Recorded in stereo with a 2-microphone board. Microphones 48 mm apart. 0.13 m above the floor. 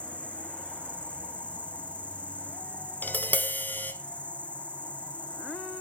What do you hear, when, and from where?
0.0 s an insect: 25° left (ahead or behind), 1.3 m
3.0 s tapping: 40° left (ahead or behind), 0.9 m